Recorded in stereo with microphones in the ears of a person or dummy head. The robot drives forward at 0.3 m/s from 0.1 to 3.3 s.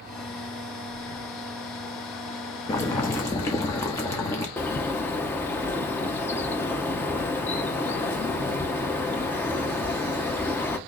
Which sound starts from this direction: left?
Breathing, at 0.9 s.